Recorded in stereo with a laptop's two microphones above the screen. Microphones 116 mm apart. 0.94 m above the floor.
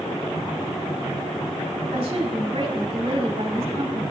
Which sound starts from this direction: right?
A woman speaking, at 1.9 s.